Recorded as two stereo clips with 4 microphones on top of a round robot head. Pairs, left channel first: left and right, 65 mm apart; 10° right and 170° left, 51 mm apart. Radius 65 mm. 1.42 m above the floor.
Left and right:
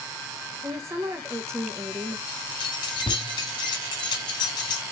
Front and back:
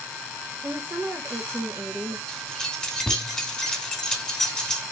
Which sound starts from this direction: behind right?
A woman speaking, at 0.6 s.